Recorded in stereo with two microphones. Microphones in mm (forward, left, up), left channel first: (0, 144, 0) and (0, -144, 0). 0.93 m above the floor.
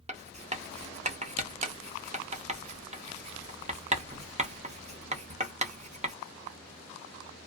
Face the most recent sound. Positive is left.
turn(degrees=-25)  # may be behind; listen again after turning